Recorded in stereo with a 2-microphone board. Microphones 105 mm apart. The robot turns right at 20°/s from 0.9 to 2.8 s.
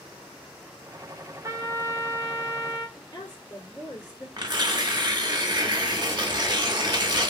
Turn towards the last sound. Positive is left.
turn(degrees=-45)  # may be behind; listen again after turning